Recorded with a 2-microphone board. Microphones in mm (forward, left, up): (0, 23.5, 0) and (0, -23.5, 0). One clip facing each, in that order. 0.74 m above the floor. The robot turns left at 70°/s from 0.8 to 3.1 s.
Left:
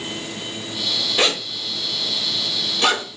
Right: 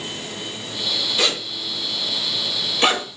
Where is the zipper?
35° left (ahead or behind), 0.8 m; by 3.0 s 35° right (ahead or behind), 0.8 m.